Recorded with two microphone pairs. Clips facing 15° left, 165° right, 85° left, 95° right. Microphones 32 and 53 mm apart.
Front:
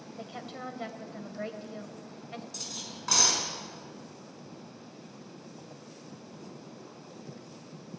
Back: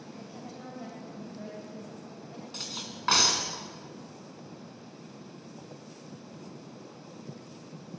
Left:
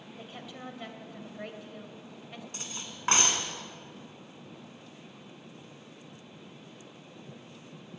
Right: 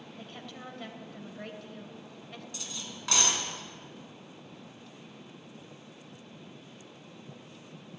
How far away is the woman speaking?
About 2.5 m.